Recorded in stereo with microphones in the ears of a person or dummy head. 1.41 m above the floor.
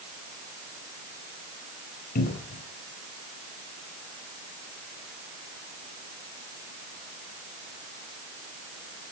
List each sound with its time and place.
2.1 s a cupboard door: 50° left (ahead or behind), 3.5 m